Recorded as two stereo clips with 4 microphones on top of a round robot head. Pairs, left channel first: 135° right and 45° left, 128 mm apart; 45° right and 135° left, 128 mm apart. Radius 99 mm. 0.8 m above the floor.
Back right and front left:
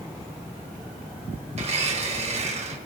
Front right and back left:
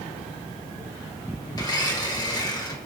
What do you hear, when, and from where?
1.5 s a blender: 15° left, 1.6 m